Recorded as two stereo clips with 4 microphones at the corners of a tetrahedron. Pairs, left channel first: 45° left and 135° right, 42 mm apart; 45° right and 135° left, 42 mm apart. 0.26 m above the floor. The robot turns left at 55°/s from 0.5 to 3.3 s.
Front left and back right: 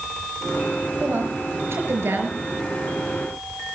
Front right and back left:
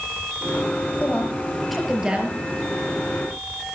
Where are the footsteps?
No footsteps in this recording.